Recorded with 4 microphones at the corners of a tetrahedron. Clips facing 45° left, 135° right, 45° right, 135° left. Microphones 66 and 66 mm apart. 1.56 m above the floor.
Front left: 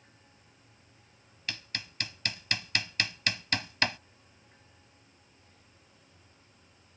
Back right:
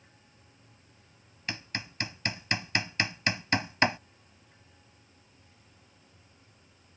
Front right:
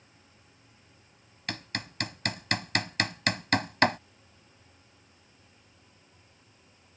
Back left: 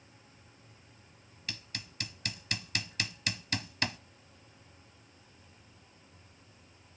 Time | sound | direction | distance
1.5 | hammering | 70° right | ?